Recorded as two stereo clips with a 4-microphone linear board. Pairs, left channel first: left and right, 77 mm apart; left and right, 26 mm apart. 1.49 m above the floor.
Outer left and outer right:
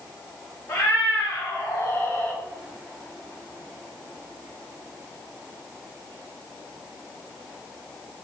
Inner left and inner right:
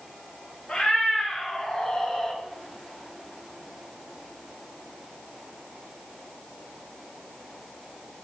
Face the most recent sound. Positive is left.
turn(degrees=15)  # may be behind; listen again after turning